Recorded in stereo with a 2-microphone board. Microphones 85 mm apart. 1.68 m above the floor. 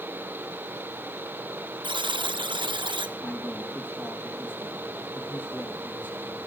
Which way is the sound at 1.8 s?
70° right (ahead or behind).